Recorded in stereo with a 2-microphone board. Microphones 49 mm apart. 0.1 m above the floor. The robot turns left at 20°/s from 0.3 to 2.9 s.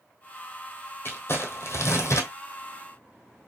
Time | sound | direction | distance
1.1 | crumpling | 45° left (ahead or behind) | 1.5 m